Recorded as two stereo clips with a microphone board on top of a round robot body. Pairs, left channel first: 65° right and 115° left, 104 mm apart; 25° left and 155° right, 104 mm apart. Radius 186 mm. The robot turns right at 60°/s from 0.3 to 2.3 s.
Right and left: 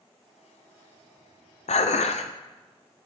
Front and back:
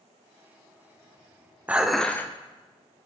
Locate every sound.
1.7 s dishes clattering: 80° right, 0.5 m; by 2.3 s 45° right, 0.5 m